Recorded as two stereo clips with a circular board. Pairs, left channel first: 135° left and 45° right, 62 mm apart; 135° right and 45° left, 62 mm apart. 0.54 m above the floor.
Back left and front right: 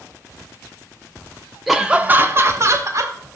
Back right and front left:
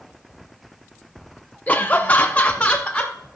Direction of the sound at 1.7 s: 130° right.